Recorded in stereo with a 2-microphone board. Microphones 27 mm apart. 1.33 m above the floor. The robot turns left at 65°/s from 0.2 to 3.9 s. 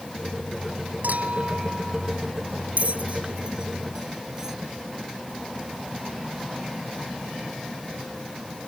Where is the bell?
55° right (ahead or behind); by 4.6 s 20° right (ahead or behind).